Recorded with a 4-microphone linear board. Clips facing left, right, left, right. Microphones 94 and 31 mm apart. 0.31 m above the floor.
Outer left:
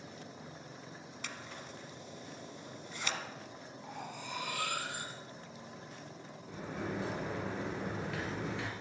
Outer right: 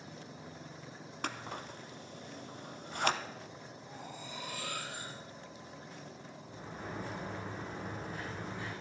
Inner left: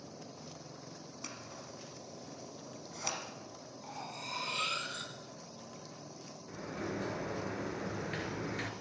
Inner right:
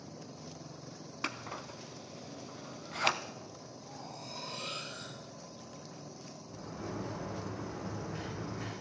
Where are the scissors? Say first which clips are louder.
Outer right 8 dB, inner right 10 dB; 55° right (ahead or behind), 0.6 m.